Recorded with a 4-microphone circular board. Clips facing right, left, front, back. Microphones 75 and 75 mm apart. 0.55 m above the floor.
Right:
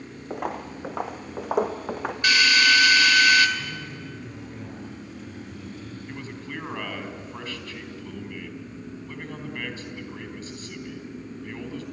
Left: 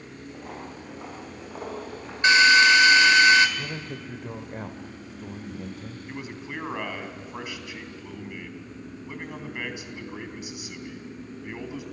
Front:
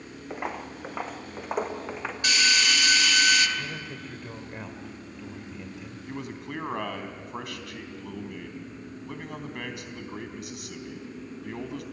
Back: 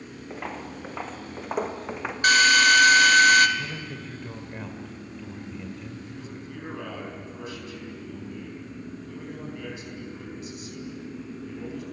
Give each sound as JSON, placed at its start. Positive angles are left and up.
{"t": 0.3, "sound": "footsteps", "azimuth_deg": -75, "distance_m": 3.0}
{"t": 2.2, "sound": "a drill", "azimuth_deg": 150, "distance_m": 2.0}
{"t": 3.6, "sound": "a man speaking", "azimuth_deg": 85, "distance_m": 1.6}
{"t": 6.1, "sound": "a man speaking", "azimuth_deg": 10, "distance_m": 3.5}